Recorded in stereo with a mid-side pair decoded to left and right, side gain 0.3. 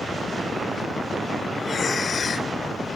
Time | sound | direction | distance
1.6 | breathing | 55° left | ?